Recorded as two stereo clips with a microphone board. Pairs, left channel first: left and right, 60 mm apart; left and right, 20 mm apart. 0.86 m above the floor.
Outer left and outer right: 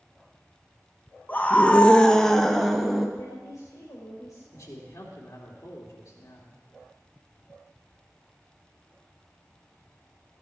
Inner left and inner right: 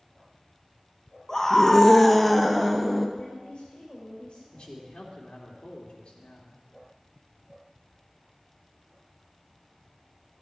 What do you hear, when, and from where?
1.3 s a scream: 25° left (ahead or behind), 0.7 m; by 3.1 s 5° right (ahead or behind), 1.1 m
3.2 s a woman speaking: 60° left (ahead or behind), 3.5 m
4.5 s a man speaking: 55° left (ahead or behind), 2.5 m